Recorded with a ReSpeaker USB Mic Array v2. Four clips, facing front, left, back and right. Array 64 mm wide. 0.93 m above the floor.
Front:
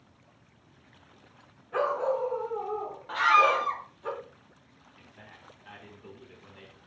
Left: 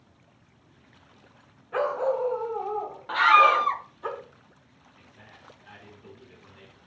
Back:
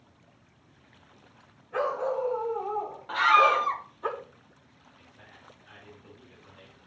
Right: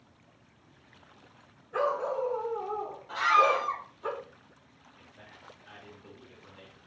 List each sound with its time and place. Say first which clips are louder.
1.7 s a dog barking: left 4 dB, front 1 dB; 80° left, 2 m; by 4.1 s 145° left, 3 m
3.1 s a scream: left 6 dB, back 1 dB; 95° left, 1.0 m
5.0 s a man speaking: left 1 dB, front 2 dB; 20° left, 3.5 m